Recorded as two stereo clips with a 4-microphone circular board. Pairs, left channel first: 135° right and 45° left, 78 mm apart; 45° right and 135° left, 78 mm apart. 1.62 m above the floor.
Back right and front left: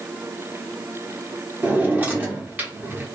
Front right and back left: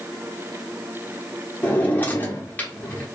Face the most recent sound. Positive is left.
turn(degrees=0)